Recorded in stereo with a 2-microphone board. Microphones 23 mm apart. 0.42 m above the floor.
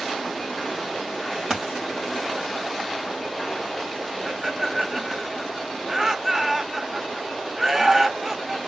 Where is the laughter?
25° right (ahead or behind), 0.9 m.